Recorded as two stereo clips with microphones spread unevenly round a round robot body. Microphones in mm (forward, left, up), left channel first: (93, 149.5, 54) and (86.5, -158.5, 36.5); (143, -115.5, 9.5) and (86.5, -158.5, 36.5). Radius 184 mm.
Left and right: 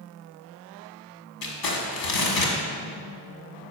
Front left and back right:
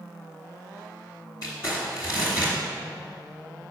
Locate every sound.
1.4 s crumpling: 90° left, 1.5 m